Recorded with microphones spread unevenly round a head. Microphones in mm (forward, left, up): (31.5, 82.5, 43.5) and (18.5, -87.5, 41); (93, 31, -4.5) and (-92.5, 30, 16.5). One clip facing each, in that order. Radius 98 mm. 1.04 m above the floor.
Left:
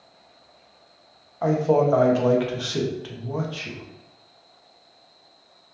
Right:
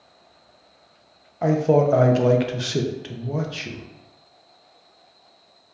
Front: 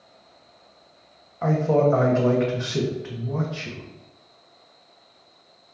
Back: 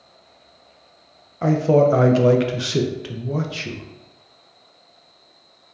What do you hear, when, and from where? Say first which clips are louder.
1.4 s a man speaking: right 2 dB, back 4 dB; 150° right, 0.5 m